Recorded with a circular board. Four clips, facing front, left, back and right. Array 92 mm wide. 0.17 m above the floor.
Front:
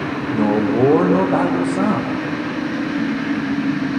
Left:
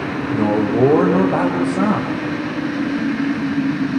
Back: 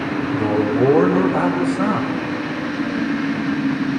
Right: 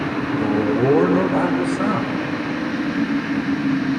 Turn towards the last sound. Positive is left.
turn(degrees=55)